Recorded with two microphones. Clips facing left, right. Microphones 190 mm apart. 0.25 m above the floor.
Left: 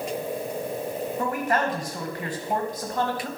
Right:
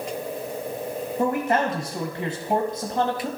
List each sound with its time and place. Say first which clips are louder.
1.2 s a man speaking: right 4 dB; 25° right (ahead or behind), 1.1 m